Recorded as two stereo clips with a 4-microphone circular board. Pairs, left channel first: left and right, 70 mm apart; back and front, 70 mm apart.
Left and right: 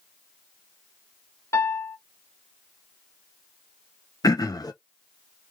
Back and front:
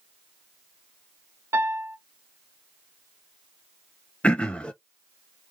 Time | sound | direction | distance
1.5 | a piano | 50° left | 0.7 m
4.2 | throat clearing | 110° left | 0.6 m